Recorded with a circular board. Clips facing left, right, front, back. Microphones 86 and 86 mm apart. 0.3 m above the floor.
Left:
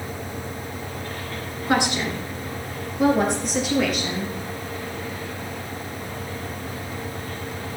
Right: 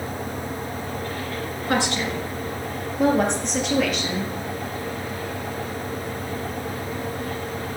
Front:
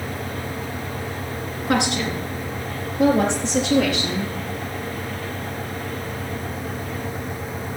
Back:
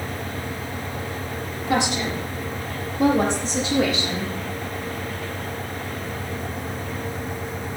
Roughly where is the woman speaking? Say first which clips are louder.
Left 2 dB, front 1 dB; ahead.